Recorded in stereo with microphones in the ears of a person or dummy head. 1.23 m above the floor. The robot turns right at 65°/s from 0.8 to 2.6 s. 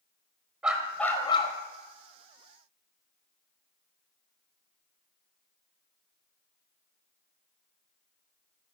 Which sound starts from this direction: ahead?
A dog barking, at 0.6 s.